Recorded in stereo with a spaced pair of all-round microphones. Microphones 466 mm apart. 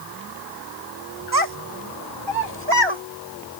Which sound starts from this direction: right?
A child speaking, at 1.3 s.